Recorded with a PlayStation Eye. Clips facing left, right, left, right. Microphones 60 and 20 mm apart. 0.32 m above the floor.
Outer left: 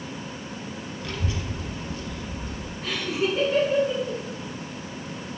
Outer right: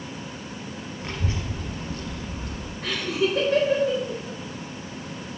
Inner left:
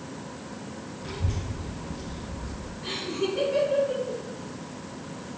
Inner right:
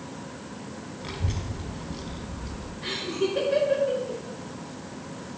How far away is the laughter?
About 4 m.